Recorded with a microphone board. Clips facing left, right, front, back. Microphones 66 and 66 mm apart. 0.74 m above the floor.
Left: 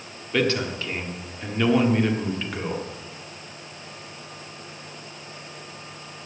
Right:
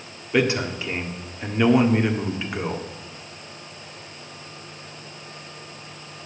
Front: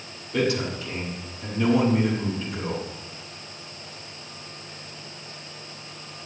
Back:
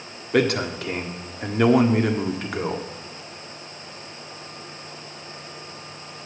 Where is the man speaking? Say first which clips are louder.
Right 2 dB, back 4 dB; 165° right, 1.4 m.